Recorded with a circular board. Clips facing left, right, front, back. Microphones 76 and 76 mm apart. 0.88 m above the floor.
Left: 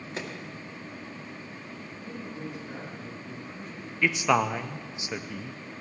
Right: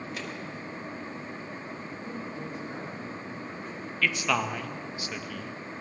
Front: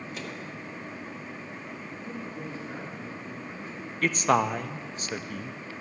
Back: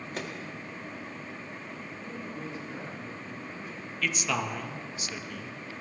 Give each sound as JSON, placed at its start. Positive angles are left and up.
{"t": 0.1, "sound": "a microwave", "azimuth_deg": 145, "distance_m": 1.8}
{"t": 2.0, "sound": "a man speaking", "azimuth_deg": -50, "distance_m": 8.5}
{"t": 4.0, "sound": "a man speaking", "azimuth_deg": 25, "distance_m": 0.7}